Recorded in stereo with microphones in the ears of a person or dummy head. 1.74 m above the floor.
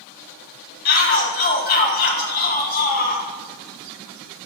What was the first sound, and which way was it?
A shout, 45° left (ahead or behind).